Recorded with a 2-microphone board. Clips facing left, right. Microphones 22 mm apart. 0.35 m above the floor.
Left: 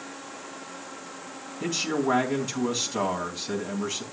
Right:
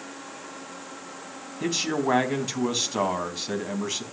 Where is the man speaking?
20° right (ahead or behind), 3 m.